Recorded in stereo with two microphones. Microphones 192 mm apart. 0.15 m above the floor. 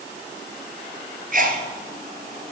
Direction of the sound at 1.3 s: 50° right (ahead or behind).